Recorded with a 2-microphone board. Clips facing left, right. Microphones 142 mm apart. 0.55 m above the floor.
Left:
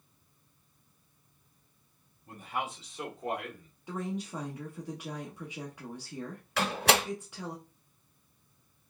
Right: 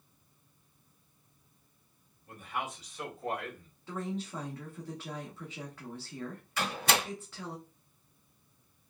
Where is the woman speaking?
15° left (ahead or behind), 0.8 m.